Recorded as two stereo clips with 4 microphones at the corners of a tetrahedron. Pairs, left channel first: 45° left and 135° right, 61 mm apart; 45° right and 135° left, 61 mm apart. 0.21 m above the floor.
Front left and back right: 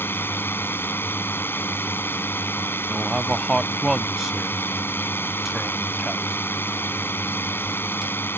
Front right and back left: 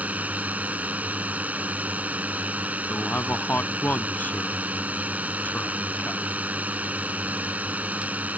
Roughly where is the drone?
Left.